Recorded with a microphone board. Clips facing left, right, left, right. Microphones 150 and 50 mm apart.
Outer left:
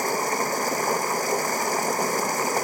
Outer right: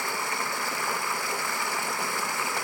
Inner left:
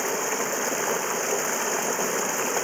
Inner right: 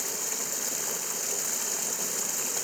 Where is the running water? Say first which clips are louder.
Outer left 7 dB, inner left 12 dB; 40° left (ahead or behind).